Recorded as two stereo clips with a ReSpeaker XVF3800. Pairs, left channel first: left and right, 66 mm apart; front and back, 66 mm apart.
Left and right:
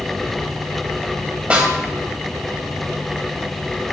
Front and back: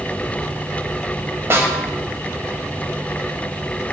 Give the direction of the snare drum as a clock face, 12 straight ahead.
5 o'clock.